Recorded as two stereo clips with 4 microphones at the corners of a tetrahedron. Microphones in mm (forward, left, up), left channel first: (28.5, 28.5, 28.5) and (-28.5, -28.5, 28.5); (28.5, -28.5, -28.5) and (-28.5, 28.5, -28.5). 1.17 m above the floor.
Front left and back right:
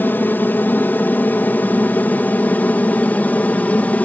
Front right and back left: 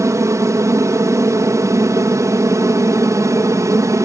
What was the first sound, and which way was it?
An aircraft, 100° left.